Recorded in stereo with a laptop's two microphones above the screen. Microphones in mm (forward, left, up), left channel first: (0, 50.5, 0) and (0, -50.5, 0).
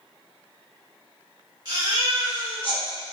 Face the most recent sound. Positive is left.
turn(degrees=-45)  # may be behind; listen again after turning